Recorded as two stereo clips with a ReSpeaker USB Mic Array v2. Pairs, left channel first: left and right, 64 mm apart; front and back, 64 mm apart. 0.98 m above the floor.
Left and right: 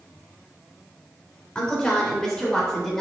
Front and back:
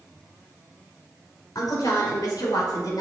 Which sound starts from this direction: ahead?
A woman speaking, at 1.6 s.